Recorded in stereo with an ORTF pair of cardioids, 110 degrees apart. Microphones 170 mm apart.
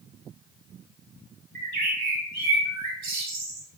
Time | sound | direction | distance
1.6 | a bird | 65° right | 1.2 m